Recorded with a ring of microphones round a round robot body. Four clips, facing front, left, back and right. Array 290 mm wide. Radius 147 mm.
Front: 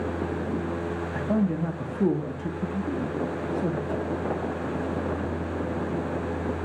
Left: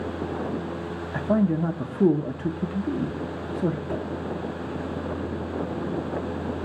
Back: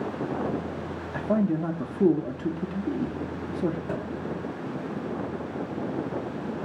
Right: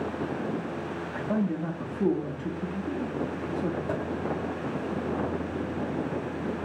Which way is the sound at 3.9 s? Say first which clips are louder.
Left 1 dB, front 2 dB; 95° right.